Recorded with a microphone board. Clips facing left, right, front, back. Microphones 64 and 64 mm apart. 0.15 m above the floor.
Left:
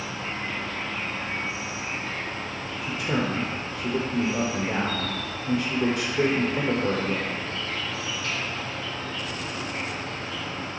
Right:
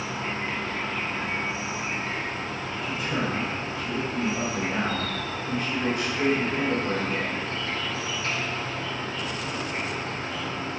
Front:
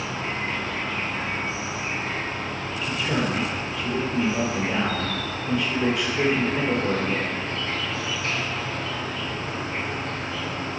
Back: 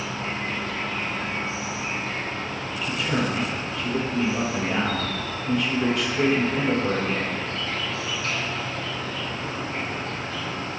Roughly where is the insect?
Ahead right.